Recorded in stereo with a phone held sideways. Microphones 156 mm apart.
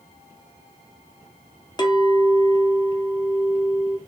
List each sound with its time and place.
1.8 s a clink: 25° left (ahead or behind), 0.6 m